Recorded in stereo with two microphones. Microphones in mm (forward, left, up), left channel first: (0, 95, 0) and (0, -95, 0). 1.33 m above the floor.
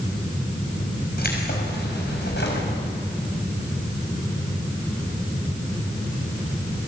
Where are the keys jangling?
55° left (ahead or behind), 5 m; by 2.7 s 70° left (ahead or behind), 5.5 m.